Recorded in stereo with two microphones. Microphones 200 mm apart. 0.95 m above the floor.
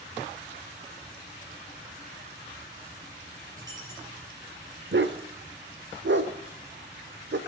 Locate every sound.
3.6 s a dropped coin: 20° right (ahead or behind), 7 m
4.9 s a dog barking: 65° right (ahead or behind), 1.1 m